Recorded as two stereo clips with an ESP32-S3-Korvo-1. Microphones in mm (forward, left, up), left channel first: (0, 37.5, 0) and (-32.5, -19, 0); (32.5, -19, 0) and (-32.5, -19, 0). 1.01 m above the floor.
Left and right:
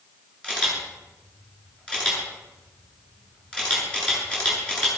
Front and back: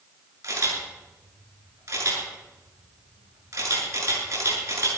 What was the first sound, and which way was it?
A camera shutter, 135° left.